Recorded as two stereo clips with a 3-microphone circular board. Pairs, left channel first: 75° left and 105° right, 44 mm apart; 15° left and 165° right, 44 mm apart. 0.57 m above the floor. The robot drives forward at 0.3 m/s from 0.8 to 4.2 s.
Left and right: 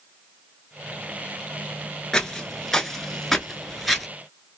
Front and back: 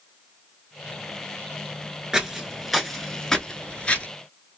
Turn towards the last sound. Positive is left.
turn(degrees=-15)